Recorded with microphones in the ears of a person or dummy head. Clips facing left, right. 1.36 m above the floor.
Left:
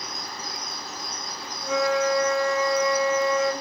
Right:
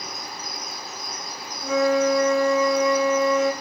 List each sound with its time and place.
1.6 s a flute: 50° right (ahead or behind), 0.8 m